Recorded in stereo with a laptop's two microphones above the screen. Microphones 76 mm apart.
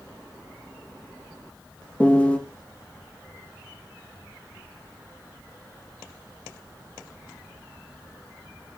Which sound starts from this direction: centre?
A piano, at 2.0 s.